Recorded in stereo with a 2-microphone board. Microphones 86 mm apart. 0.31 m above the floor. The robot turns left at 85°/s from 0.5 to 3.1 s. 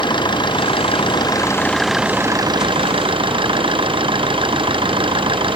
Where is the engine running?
120° left; by 5.6 s 105° right.